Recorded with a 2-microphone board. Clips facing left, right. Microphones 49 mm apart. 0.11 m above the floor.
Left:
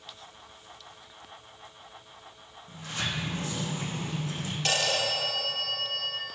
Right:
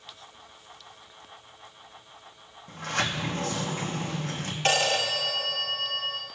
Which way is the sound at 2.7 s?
55° right (ahead or behind).